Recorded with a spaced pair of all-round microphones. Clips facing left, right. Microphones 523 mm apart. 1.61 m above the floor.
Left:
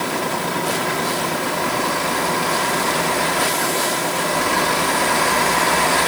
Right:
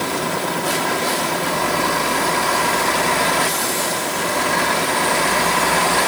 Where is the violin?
No violin in this recording.